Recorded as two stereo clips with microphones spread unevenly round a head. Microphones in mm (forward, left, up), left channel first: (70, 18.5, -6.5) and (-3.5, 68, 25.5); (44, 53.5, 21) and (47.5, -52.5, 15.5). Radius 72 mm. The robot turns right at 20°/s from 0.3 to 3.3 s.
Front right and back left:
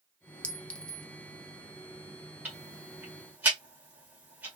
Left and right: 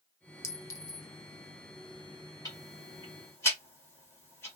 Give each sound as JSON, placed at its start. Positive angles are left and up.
{"t": 0.4, "sound": "a clink", "azimuth_deg": 65, "distance_m": 0.8}
{"t": 2.5, "sound": "ticking", "azimuth_deg": 130, "distance_m": 1.6}